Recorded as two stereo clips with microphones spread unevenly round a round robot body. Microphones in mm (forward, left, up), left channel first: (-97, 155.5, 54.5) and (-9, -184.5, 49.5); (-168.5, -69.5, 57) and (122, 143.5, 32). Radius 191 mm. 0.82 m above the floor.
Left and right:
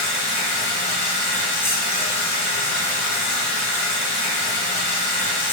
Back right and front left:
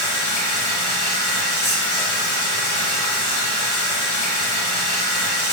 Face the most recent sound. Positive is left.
turn(degrees=-175)